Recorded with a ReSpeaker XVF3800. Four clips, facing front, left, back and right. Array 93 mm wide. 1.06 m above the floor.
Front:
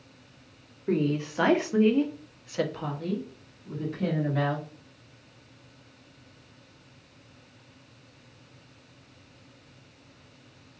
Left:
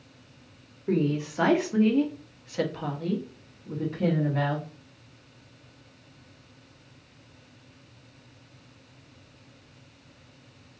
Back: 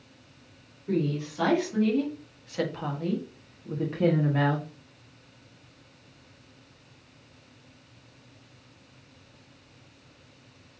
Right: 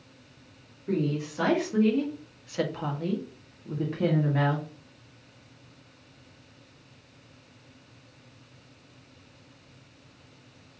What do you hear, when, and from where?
0.9 s a woman speaking: 30° left, 1.1 m; by 4.7 s 145° right, 1.3 m